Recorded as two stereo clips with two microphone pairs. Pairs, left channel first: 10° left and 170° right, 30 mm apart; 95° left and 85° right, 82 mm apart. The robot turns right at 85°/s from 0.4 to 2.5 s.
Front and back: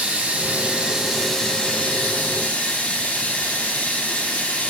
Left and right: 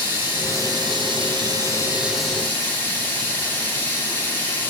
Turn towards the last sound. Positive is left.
turn(degrees=30)